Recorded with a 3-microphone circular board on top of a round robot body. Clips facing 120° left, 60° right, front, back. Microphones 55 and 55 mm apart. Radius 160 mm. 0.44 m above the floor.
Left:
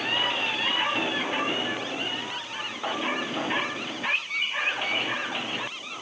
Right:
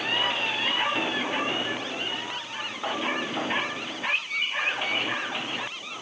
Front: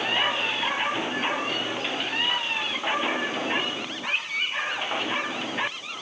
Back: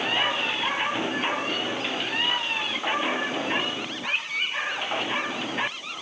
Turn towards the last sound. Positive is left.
No sound to turn to.